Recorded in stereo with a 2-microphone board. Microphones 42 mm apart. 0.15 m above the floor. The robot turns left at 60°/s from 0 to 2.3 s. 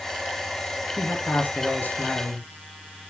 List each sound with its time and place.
1.0 s a man speaking: 120° left, 3 m; by 2.5 s 40° left, 3 m